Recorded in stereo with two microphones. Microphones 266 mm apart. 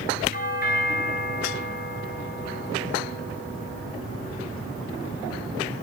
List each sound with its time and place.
0.3 s a doorbell: 35° left (ahead or behind), 3.5 m